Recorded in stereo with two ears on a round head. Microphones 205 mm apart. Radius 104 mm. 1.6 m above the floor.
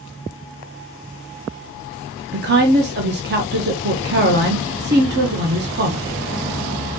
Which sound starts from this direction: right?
A woman speaking, at 2.3 s.